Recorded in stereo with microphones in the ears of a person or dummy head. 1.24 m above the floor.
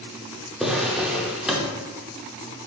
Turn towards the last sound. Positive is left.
turn(degrees=-5)  # may be behind; listen again after turning